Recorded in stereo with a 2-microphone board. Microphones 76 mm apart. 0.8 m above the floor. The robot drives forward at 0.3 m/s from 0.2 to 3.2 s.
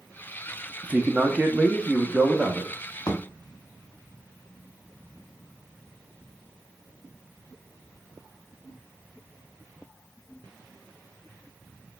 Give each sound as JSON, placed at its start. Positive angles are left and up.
{"t": 0.8, "sound": "a man speaking", "side_deg": -20, "distance_m": 0.5}
{"t": 3.1, "sound": "a thud", "side_deg": 55, "distance_m": 0.8}